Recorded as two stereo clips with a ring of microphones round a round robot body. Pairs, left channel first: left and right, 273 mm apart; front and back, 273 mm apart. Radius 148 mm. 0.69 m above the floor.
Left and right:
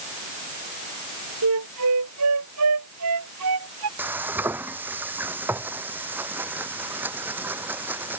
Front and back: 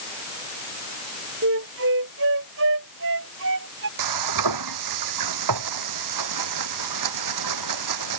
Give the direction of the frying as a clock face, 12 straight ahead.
6 o'clock.